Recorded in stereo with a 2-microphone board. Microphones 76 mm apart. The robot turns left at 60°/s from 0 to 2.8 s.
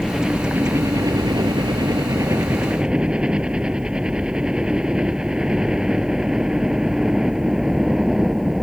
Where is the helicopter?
5° left (ahead or behind); by 8.6 s 5° right (ahead or behind).